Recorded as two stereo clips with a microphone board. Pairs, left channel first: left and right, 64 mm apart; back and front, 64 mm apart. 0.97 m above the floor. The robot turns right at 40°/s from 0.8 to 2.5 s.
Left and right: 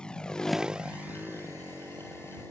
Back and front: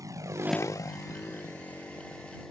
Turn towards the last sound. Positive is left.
turn(degrees=-100)